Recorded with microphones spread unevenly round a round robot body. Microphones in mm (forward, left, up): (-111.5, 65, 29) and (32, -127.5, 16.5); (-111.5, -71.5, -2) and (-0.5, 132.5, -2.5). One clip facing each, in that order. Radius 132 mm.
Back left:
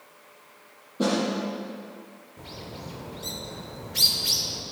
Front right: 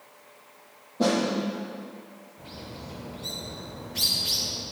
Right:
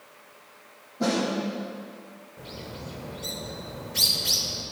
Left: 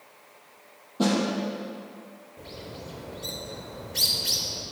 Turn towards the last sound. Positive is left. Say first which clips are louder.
# back left 2 dB, right 1 dB
turn(degrees=150)